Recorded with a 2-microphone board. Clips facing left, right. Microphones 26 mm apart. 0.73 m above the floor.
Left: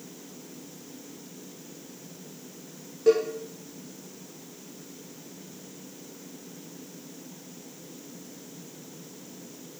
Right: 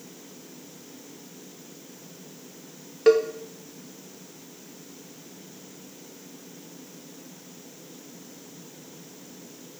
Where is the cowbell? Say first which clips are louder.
Right 3 dB; 65° right (ahead or behind), 0.6 m.